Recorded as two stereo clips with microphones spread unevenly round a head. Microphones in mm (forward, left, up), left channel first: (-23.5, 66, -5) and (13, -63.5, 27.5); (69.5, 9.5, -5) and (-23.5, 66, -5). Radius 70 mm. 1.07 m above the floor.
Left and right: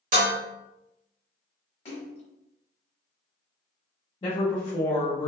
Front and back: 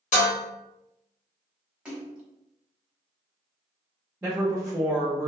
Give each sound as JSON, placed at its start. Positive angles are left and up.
{"t": 0.1, "sound": "dishes clattering", "azimuth_deg": -45, "distance_m": 1.2}
{"t": 1.9, "sound": "a splash", "azimuth_deg": 80, "distance_m": 0.9}
{"t": 4.2, "sound": "a woman speaking", "azimuth_deg": 75, "distance_m": 0.7}